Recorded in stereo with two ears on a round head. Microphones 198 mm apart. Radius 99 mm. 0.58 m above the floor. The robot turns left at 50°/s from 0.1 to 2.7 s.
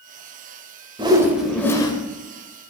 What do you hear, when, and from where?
1.0 s a whoosh: 155° right, 1.4 m; by 1.9 s 155° left, 1.4 m